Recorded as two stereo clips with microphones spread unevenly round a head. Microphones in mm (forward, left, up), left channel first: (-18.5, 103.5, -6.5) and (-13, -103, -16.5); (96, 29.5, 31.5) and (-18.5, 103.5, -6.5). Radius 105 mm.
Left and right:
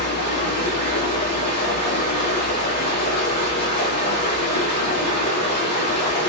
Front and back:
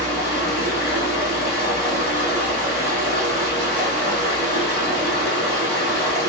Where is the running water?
30° left, 1.8 m.